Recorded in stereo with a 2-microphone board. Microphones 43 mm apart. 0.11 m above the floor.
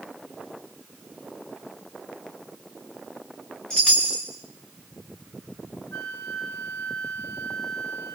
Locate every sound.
3.7 s a chime: 20° left (ahead or behind), 3 m
5.9 s a flute: 75° left (ahead or behind), 5 m